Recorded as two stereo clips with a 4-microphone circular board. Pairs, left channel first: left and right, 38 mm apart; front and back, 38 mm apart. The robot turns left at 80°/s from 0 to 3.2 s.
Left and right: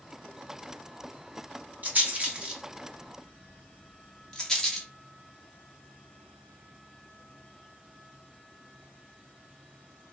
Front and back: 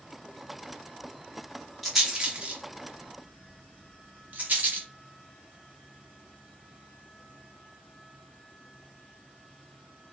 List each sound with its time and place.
1.8 s a rattle: 85° right, 1.1 m; by 4.9 s 165° left, 1.1 m